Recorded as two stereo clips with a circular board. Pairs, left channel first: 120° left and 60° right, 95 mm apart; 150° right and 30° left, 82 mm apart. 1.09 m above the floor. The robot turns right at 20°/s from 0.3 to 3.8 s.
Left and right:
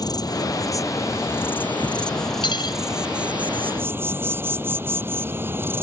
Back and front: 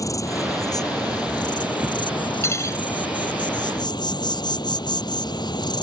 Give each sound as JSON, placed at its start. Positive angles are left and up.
{"t": 0.0, "sound": "an insect", "azimuth_deg": 165}
{"t": 2.4, "sound": "cutlery clinking", "azimuth_deg": 155}